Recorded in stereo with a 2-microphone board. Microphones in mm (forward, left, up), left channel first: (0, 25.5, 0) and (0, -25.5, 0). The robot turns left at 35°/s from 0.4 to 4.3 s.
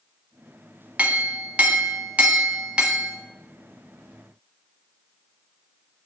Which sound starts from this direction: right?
A clink, at 1.0 s.